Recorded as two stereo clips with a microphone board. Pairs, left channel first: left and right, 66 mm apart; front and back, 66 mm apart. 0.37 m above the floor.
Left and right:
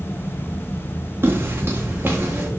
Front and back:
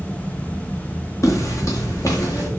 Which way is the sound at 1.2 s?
35° right.